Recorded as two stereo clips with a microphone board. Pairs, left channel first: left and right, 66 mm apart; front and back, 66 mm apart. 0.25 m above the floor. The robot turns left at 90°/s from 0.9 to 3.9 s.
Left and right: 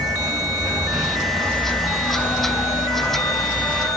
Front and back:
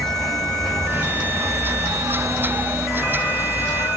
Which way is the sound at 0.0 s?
85° right.